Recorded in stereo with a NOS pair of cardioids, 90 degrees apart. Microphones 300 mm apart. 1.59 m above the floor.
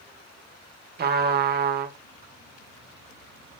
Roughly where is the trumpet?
Ahead right.